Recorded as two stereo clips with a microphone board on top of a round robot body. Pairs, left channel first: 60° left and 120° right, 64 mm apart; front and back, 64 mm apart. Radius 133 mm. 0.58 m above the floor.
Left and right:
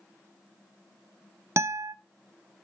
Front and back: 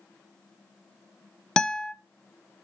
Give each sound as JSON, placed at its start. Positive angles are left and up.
{"t": 1.6, "sound": "a guitar", "azimuth_deg": -80, "distance_m": 0.6}